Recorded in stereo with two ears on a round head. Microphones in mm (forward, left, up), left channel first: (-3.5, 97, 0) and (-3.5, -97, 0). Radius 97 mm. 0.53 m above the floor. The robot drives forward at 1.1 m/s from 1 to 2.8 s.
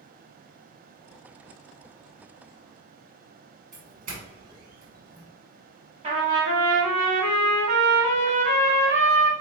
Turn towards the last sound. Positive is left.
turn(degrees=-30)  # may be behind; listen again after turning